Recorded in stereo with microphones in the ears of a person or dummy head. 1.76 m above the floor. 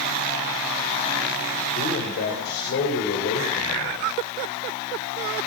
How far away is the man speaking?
About 6 m.